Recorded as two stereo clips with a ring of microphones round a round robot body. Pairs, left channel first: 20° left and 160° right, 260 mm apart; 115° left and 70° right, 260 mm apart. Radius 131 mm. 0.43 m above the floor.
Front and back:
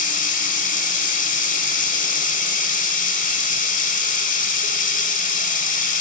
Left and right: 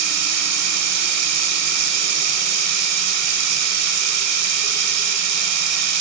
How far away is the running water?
About 1.0 m.